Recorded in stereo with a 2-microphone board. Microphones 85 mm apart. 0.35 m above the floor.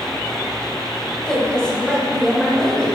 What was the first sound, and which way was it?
A woman speaking, 10° left (ahead or behind).